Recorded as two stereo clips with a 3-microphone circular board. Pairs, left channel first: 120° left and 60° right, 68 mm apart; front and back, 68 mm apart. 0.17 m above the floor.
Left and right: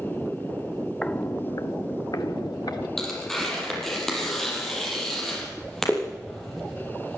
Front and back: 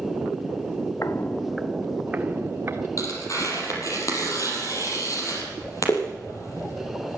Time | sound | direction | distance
1.0 | footsteps | 40° left | 0.9 m
3.0 | tearing paper | 35° left | 5 m